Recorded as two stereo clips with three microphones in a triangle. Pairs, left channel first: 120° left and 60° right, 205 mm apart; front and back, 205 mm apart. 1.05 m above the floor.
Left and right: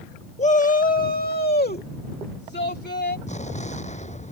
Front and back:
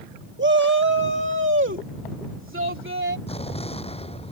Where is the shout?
170° left; by 3.2 s 155° left.